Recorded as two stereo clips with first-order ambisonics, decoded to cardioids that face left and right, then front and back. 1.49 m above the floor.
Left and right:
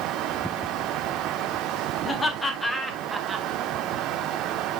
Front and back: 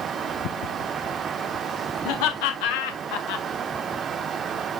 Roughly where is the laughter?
Ahead.